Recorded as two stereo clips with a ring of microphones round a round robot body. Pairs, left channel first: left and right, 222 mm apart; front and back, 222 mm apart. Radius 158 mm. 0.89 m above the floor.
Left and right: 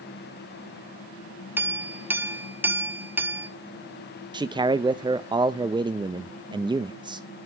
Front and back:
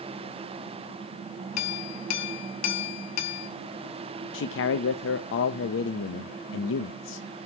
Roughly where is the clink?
Ahead.